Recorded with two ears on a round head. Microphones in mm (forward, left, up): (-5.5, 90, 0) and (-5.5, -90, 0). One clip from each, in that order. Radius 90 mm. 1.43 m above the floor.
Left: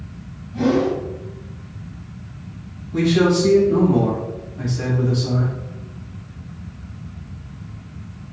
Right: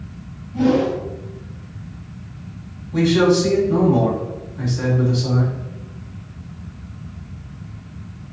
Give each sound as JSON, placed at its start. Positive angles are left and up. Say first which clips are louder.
{"t": 0.5, "sound": "a whoosh", "louder": "right 1 dB", "side_deg": 30, "distance_m": 1.7}
{"t": 2.9, "sound": "a man speaking", "louder": "right 2 dB", "side_deg": -25, "distance_m": 2.0}